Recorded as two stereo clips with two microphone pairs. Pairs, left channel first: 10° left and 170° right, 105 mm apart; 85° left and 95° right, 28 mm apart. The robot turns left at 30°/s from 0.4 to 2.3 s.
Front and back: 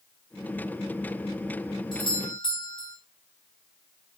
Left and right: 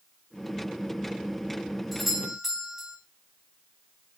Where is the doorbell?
5° right, 2.5 m; by 3.0 s 15° right, 2.5 m.